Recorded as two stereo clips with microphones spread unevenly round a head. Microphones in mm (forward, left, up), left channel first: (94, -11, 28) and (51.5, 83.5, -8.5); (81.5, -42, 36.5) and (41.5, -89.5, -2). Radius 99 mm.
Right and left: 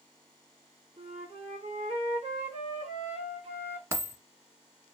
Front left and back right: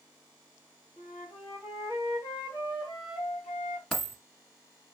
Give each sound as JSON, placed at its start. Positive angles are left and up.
{"t": 1.0, "sound": "a flute", "azimuth_deg": 95, "distance_m": 2.0}
{"t": 3.9, "sound": "a dropped coin", "azimuth_deg": 45, "distance_m": 1.6}